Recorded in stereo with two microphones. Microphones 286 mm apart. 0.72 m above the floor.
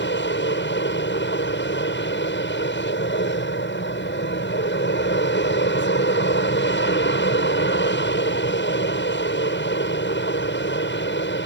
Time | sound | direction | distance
0.0 | an aircraft | 40° left (ahead or behind) | ?